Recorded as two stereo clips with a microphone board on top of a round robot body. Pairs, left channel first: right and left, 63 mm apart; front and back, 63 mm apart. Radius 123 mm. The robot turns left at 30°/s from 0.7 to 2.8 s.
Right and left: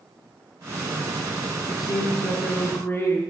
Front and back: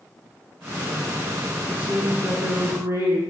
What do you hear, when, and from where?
1.7 s a woman speaking: 105° right, 8 m; by 3.2 s 140° right, 8 m